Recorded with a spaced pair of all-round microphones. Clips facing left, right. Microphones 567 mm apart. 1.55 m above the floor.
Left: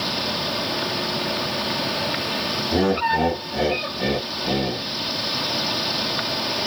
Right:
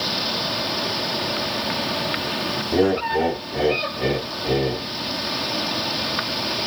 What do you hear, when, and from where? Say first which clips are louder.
2.7 s laughter: right 2 dB; 55° left (ahead or behind), 1.5 m